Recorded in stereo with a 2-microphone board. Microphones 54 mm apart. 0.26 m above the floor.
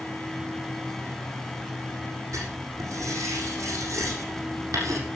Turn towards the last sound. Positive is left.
turn(degrees=-75)  # may be behind; listen again after turning